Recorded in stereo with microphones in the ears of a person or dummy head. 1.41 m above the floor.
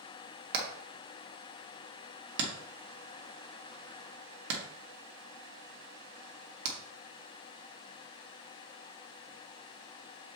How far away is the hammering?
About 1.8 m.